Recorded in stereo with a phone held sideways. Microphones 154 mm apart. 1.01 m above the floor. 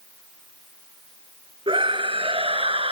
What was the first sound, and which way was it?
A scream, 35° right (ahead or behind).